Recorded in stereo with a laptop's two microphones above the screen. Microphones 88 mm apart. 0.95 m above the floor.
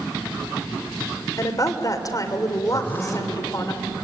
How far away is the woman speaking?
About 3 m.